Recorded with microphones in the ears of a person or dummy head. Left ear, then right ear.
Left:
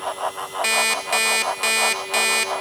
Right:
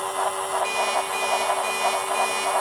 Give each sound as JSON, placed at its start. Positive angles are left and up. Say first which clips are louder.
{"t": 0.6, "sound": "an alarm clock", "louder": "left 7 dB", "side_deg": 45, "distance_m": 0.6}